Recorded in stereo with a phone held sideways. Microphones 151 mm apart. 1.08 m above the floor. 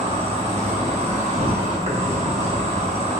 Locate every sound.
0.0 s an insect: 45° right (ahead or behind), 0.7 m